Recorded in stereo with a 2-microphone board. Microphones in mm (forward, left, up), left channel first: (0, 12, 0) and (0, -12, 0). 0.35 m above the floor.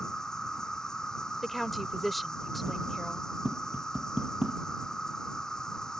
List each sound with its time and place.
0.0 s an insect: 25° left (ahead or behind)
1.4 s a woman speaking: 5° left (ahead or behind)
3.5 s tapping: 45° right (ahead or behind)